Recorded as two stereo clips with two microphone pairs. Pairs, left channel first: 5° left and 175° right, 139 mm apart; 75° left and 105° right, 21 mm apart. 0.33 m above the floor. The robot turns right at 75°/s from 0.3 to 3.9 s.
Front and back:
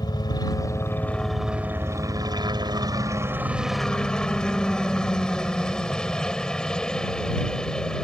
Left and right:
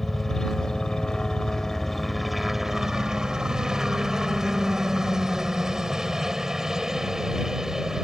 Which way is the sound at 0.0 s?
20° left.